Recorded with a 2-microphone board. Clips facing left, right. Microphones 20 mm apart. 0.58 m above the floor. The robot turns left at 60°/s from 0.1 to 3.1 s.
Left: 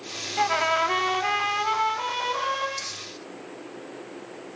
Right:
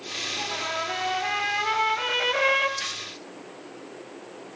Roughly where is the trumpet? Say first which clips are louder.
Left 11 dB; ahead left.